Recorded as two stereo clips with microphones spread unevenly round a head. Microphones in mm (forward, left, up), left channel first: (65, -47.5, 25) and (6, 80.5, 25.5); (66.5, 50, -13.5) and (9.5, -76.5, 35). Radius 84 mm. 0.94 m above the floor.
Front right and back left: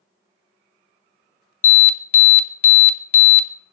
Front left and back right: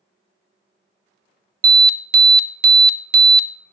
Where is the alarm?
85° right, 0.7 m.